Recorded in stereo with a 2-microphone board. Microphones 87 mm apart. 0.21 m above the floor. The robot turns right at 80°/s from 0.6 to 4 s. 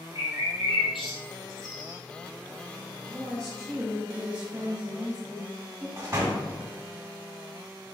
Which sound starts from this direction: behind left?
A woman speaking, at 3.1 s.